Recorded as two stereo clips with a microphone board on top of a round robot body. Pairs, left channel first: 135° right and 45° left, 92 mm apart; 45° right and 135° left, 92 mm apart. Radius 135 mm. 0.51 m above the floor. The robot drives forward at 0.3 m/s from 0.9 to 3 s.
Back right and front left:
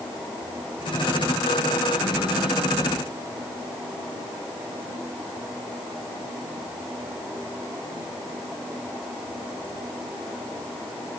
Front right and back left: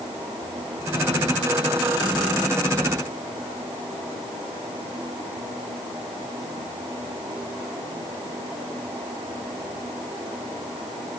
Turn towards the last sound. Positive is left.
No sound to turn to.